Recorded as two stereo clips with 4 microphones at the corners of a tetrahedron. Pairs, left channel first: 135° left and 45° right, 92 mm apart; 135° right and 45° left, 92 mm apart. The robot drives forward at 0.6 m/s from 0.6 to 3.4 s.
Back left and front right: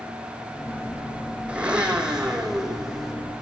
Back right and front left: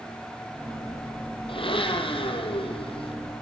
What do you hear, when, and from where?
1.5 s a blender: 125° right, 5 m; by 3.1 s 130° right, 5.5 m